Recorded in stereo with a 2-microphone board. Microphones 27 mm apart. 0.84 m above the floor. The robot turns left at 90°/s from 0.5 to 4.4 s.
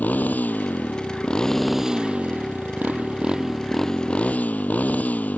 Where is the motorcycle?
105° left; by 5.4 s 115° left.